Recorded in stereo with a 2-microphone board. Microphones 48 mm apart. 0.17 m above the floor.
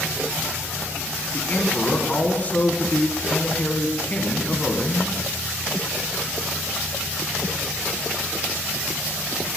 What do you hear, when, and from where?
1.3 s a man speaking: 30° left (ahead or behind), 1.4 m